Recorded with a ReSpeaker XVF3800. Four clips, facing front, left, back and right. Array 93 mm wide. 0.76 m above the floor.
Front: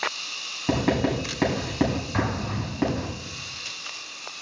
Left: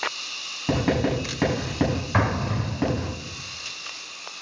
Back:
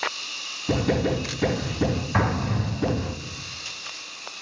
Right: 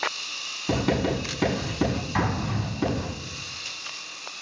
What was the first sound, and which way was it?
Writing, 40° left.